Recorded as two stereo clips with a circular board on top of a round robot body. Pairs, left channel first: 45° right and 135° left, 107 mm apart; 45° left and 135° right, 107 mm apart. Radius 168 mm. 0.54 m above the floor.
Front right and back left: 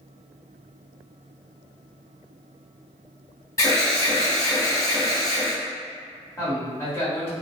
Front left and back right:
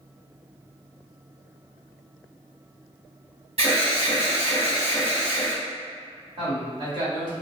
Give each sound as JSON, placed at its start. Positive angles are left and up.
{"t": 3.6, "sound": "an alarm", "azimuth_deg": -110, "distance_m": 1.3}
{"t": 6.4, "sound": "a man speaking", "azimuth_deg": -105, "distance_m": 1.7}